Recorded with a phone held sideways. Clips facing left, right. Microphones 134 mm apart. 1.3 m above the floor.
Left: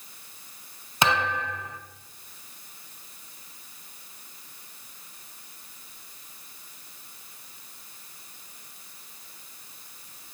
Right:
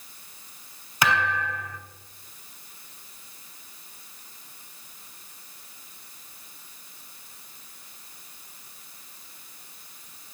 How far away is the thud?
About 1.9 m.